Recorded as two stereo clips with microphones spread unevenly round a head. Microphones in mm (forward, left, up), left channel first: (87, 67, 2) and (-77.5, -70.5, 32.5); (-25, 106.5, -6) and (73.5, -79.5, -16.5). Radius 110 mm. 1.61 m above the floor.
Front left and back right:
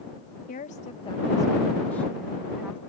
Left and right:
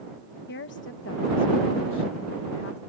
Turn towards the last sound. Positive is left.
turn(degrees=140)